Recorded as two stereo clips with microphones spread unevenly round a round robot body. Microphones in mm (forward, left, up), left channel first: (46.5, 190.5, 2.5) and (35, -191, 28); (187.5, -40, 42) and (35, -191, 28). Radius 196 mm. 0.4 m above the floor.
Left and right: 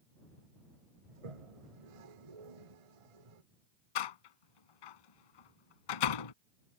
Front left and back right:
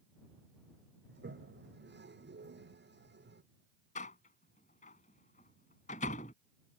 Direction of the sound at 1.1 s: 100° right.